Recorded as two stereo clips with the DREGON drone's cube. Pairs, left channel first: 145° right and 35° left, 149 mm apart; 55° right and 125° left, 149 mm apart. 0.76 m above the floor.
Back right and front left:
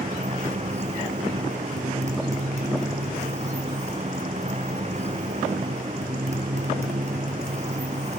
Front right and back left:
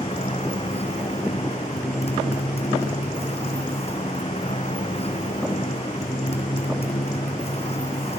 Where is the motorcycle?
5° right.